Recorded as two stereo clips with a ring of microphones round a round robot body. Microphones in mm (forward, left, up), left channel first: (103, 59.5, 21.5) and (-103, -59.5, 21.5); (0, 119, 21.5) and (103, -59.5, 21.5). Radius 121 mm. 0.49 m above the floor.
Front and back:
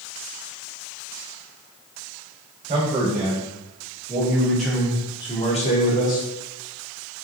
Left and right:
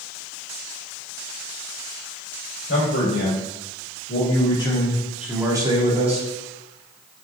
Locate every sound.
2.7 s a man speaking: 150° left, 1.5 m; by 6.3 s 10° right, 1.1 m